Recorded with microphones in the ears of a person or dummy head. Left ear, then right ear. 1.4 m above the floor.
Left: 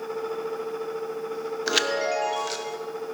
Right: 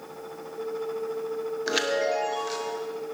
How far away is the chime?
About 0.6 m.